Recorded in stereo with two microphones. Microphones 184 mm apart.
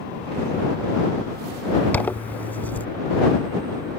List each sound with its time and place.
1.9 s a zipper: 10° left (ahead or behind)